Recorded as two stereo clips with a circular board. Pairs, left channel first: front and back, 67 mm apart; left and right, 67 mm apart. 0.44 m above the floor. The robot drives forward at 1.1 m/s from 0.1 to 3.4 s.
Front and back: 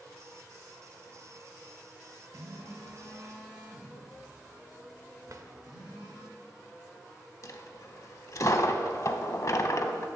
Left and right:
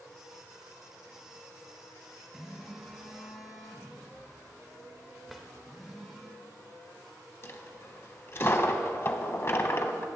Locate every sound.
2.3 s a phone buzzing: 175° right, 2 m
5.3 s a drawer: straight behind, 0.8 m
7.4 s a dropped coin: 40° left, 0.7 m